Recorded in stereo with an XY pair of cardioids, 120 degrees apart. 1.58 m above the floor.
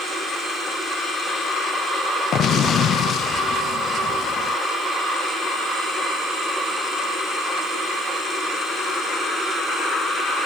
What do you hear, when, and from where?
2.3 s an explosion: 55° left